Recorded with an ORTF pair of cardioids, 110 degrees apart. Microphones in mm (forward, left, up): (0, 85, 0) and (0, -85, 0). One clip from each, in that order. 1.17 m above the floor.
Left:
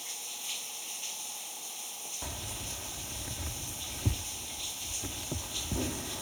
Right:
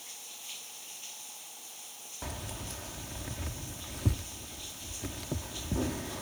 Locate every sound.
0.0 s running water: 35° left
2.2 s keys jangling: 15° right